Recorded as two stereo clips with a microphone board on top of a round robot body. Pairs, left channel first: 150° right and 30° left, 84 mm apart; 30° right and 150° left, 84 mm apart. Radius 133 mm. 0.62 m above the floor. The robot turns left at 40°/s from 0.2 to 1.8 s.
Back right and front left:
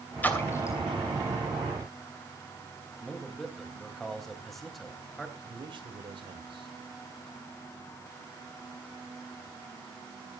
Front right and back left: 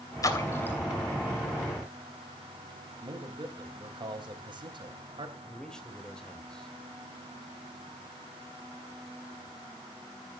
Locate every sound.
0.2 s a splash: 80° right, 3 m; by 0.8 s 100° right, 3 m
3.0 s a man speaking: 125° left, 3.5 m
5.4 s a man speaking: 50° left, 3 m